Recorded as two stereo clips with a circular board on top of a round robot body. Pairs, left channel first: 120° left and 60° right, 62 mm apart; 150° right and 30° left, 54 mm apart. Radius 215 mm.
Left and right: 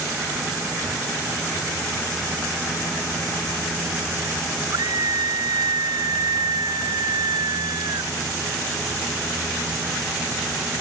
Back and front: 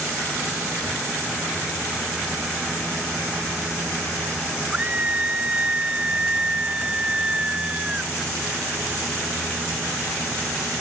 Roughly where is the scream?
Ahead right.